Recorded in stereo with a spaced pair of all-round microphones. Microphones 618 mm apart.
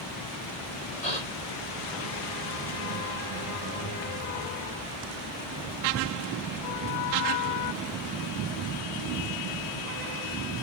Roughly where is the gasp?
Left.